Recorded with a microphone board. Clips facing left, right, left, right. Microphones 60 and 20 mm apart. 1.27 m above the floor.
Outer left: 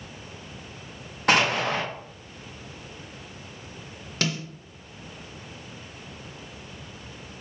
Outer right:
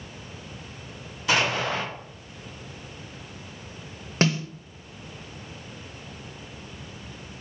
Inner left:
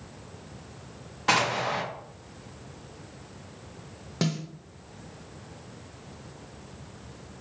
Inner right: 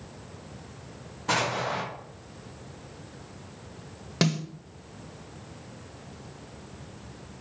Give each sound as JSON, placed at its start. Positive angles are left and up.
{"t": 1.3, "sound": "an explosion", "side_deg": 60, "distance_m": 1.4}
{"t": 4.2, "sound": "a snare drum", "side_deg": -35, "distance_m": 0.7}